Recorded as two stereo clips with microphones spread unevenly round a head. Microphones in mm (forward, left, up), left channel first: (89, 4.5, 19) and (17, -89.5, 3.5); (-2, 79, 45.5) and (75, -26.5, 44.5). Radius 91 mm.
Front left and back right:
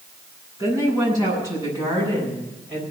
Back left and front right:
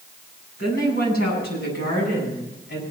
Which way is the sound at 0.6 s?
120° left.